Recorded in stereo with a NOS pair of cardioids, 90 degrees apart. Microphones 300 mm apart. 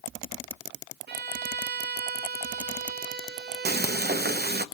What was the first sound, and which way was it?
A violin, 35° right.